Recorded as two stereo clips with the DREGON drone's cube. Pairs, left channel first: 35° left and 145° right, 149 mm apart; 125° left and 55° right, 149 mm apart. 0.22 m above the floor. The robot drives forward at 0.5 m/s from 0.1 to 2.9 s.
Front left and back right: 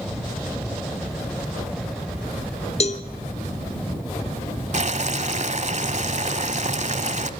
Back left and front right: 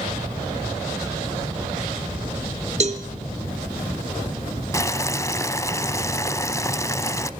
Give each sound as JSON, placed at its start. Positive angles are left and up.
{"t": 2.8, "sound": "a cowbell", "azimuth_deg": -10, "distance_m": 1.1}
{"t": 4.7, "sound": "boiling", "azimuth_deg": -170, "distance_m": 1.0}